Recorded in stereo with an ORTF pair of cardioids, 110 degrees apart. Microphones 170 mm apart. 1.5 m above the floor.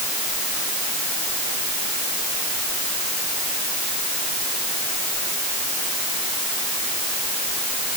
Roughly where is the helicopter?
I don't hear a helicopter.